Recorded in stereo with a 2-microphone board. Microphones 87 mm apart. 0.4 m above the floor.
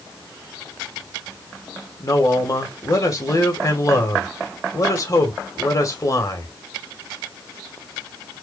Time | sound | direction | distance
2.0 | a man speaking | 40° left (ahead or behind) | 1.8 m